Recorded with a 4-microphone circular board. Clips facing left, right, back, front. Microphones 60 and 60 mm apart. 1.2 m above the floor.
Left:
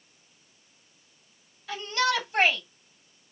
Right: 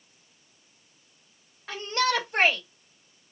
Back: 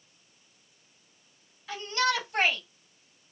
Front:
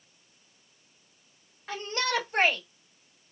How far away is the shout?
About 3 m.